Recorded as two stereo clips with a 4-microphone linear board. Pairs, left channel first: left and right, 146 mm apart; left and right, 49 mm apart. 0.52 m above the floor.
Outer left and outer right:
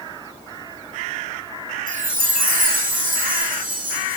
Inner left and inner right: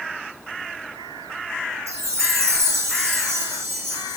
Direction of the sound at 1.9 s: 70° right (ahead or behind).